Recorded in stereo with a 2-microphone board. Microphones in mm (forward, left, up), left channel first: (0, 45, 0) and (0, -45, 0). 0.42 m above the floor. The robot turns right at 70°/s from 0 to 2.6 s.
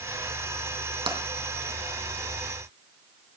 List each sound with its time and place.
1.1 s tapping: 65° right (ahead or behind), 3.5 m; by 1.2 s 75° right (ahead or behind), 3.5 m